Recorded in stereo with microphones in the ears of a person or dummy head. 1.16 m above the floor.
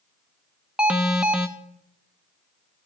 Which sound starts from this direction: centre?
An alarm, at 0.8 s.